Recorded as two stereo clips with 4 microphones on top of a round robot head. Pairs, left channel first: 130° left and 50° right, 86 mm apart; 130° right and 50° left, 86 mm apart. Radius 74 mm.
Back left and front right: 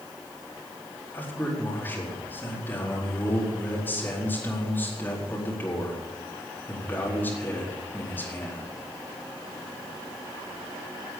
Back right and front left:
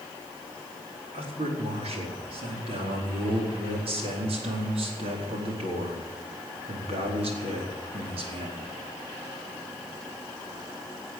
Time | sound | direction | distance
1.1 | a man speaking | 60° left | 4.5 m